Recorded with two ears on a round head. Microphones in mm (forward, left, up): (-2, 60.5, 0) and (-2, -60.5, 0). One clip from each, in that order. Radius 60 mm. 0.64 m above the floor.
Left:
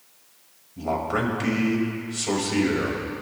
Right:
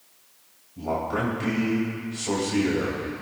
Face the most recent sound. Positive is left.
turn(degrees=40)  # may be behind; listen again after turning